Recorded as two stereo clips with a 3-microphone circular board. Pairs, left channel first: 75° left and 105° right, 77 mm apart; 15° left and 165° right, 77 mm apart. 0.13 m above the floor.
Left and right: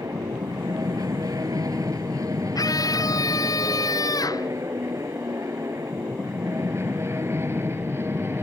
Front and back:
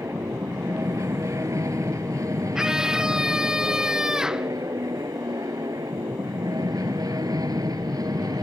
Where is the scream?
115° left.